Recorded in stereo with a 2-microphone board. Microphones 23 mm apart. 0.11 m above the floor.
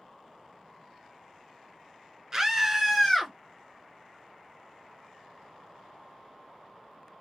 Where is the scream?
25° right (ahead or behind), 1.2 m; by 3.3 s 10° left (ahead or behind), 1.4 m.